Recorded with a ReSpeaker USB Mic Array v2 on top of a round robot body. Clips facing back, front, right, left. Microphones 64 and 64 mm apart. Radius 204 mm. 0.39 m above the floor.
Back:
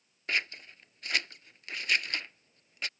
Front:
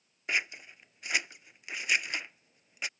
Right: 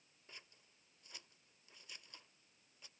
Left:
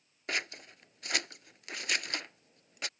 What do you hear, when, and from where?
0.3 s scissors: 80° left